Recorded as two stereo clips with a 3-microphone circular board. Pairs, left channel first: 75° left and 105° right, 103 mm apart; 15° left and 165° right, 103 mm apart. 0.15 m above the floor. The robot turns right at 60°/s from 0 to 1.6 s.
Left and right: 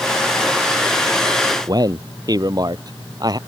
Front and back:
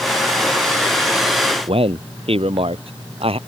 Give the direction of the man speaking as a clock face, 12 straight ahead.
5 o'clock.